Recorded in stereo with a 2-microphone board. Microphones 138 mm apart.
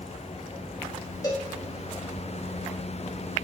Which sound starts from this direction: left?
A cowbell, at 1.2 s.